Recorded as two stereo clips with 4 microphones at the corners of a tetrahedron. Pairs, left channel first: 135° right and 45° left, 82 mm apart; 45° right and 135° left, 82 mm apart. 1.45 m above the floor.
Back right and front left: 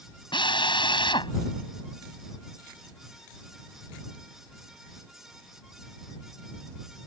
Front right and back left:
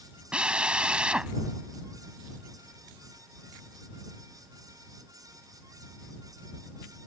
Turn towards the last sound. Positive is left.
turn(degrees=-145)